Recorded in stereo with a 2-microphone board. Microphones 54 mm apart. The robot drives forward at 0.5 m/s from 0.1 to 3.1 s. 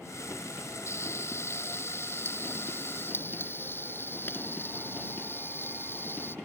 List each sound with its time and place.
0.9 s frying: 55° left (ahead or behind); by 6.3 s 40° left (ahead or behind)